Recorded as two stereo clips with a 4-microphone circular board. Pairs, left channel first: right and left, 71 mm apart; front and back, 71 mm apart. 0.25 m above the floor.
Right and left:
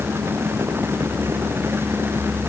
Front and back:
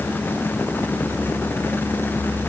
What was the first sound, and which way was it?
Only background noise.